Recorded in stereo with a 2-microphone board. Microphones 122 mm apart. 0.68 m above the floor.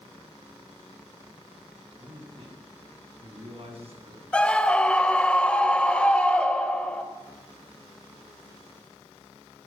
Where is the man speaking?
45° right (ahead or behind), 8.5 m; by 4.2 s 60° right (ahead or behind), 7.5 m.